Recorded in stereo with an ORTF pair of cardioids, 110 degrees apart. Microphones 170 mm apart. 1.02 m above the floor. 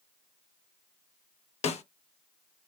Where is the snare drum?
40° left, 0.8 m.